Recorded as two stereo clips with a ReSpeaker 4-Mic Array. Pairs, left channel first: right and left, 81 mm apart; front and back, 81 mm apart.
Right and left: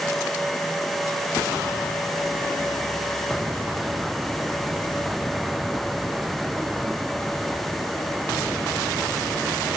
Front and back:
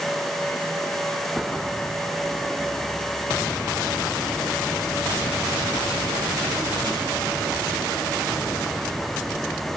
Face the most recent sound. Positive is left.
No sound to turn to.